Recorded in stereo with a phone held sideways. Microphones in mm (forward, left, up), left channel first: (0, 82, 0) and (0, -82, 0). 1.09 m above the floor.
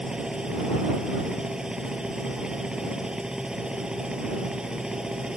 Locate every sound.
0.0 s a machine running: 5° right (ahead or behind)